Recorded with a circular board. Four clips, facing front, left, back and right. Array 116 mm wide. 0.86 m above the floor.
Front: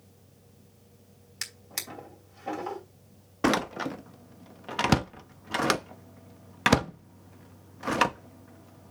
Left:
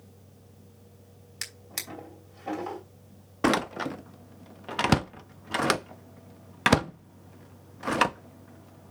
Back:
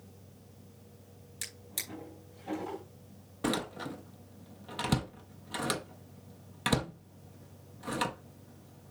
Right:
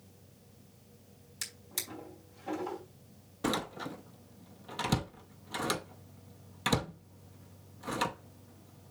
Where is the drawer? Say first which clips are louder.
Left 4 dB, front 5 dB; 45° left, 2.5 m.